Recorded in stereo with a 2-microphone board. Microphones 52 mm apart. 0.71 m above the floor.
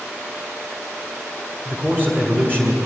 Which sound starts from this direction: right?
A man speaking, at 1.6 s.